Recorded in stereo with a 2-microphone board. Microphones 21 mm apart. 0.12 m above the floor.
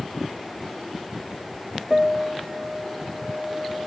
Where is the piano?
25° right (ahead or behind), 0.5 m.